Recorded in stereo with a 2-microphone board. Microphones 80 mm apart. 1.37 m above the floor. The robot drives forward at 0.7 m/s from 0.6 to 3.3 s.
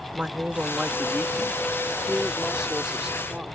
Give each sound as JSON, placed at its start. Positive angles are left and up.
{"t": 0.1, "sound": "a woman speaking", "side_deg": -10}